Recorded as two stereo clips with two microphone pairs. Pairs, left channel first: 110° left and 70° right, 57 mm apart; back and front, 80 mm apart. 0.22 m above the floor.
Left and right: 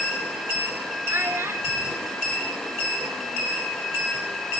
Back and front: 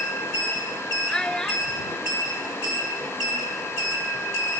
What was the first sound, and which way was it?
A child speaking, 105° right.